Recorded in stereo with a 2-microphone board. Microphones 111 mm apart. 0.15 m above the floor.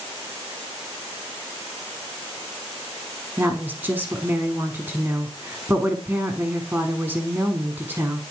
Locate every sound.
3.4 s a woman speaking: 20° right (ahead or behind), 1.1 m